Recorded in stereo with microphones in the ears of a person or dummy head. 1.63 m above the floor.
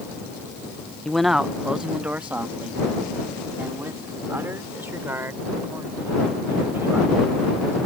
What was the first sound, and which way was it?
A man speaking, centre (ahead or behind).